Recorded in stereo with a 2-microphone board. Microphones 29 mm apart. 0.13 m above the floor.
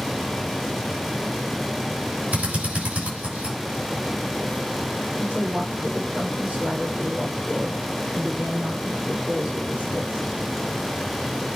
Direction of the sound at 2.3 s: 65° right (ahead or behind).